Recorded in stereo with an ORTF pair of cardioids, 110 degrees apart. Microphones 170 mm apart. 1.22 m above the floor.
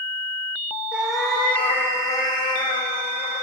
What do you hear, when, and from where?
0.9 s a cat meowing: 5° right, 1.9 m; by 3.4 s 50° left, 2.5 m